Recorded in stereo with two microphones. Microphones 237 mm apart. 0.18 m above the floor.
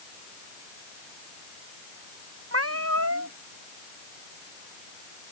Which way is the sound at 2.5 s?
75° right (ahead or behind).